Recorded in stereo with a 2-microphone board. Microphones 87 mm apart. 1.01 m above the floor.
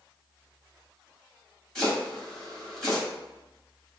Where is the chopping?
5° left (ahead or behind), 1.4 m.